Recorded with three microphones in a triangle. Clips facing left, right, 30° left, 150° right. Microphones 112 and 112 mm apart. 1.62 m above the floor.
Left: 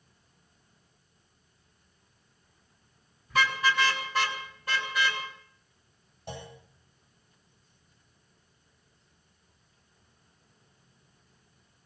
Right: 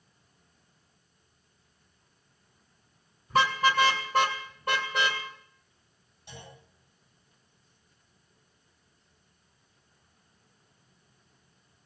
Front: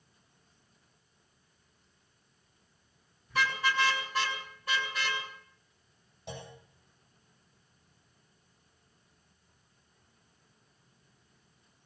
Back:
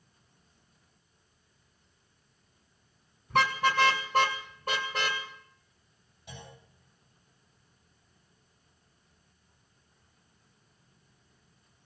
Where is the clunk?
50° left, 8 m.